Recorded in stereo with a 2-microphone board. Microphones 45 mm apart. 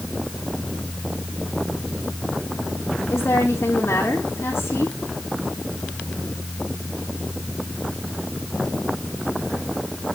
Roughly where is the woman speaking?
Left.